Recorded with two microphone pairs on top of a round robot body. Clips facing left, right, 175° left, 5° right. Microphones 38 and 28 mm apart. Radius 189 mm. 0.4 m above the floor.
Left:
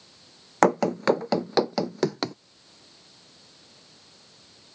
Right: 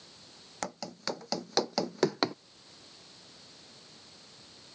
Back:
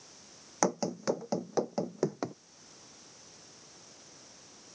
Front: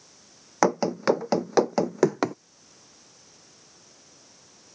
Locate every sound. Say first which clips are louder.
0.6 s running footsteps: left 18 dB, front 8 dB; 50° left; by 2.4 s 10° right